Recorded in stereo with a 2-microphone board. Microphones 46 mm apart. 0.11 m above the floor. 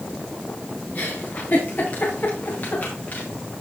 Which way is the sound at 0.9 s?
40° left (ahead or behind).